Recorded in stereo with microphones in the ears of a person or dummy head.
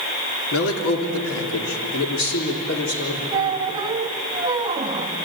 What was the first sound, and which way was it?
A man speaking, 80° left.